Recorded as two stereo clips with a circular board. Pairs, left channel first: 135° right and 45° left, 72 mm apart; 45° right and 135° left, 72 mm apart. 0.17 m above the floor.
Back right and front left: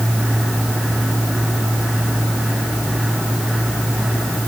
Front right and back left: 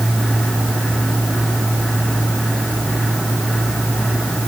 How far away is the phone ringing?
No phone ringing in this recording.